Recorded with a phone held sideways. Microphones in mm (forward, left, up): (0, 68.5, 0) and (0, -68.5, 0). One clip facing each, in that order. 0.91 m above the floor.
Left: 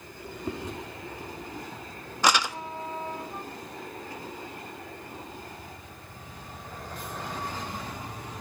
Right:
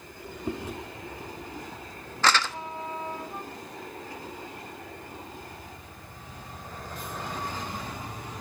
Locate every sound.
0.5 s chewing: 10° right (ahead or behind), 0.5 m
2.2 s crumpling: 15° left (ahead or behind), 0.5 m